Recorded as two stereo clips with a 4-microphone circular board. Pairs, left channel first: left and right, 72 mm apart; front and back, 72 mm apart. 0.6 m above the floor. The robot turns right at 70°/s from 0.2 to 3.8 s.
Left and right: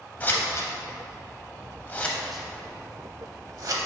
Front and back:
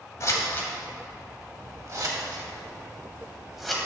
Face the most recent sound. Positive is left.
turn(degrees=-80)